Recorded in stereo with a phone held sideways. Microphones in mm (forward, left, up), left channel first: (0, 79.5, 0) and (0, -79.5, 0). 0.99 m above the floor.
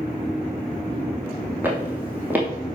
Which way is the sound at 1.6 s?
10° right (ahead or behind).